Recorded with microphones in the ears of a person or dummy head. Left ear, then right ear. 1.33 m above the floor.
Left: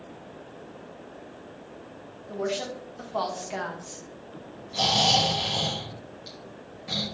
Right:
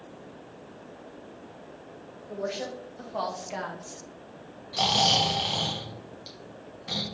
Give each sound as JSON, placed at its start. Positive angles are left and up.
{"t": 2.3, "sound": "a woman speaking", "side_deg": 20, "distance_m": 1.8}
{"t": 4.7, "sound": "snoring", "side_deg": -25, "distance_m": 1.1}